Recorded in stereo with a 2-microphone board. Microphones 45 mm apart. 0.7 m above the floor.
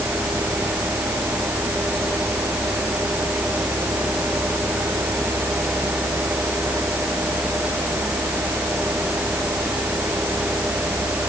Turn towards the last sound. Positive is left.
No sound to turn to.